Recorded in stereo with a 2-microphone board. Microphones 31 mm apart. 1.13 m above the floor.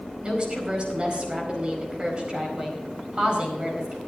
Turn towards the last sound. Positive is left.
turn(degrees=-35)  # may be behind; listen again after turning